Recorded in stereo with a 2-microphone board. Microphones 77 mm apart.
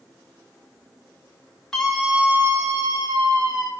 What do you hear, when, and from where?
1.7 s a scream: 5° left (ahead or behind), 1.6 m; by 3.7 s 70° right (ahead or behind), 2.5 m